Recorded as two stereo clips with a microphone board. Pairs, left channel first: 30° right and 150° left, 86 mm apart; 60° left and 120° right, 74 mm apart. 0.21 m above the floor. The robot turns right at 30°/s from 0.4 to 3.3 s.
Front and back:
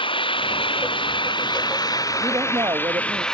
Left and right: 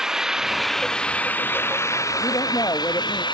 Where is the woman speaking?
90° left; by 3.2 s 125° left.